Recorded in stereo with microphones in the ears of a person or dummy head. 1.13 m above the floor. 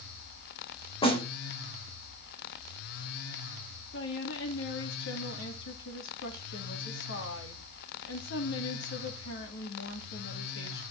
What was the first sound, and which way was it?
A snare drum, 25° left (ahead or behind).